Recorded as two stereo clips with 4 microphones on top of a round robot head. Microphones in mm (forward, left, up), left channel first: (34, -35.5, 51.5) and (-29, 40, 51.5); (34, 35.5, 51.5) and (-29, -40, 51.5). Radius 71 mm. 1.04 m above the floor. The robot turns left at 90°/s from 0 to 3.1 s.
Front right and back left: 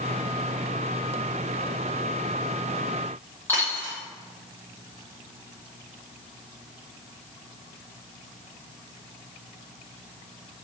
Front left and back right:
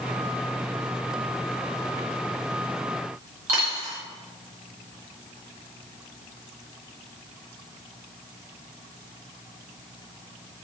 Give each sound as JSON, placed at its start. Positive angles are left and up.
{"t": 3.5, "sound": "a dropped coin", "azimuth_deg": -120, "distance_m": 1.0}